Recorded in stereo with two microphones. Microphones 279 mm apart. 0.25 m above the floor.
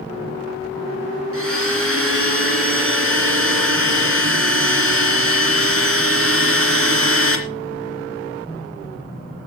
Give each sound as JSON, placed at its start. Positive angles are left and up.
{"t": 1.3, "sound": "a blender", "side_deg": -50, "distance_m": 2.5}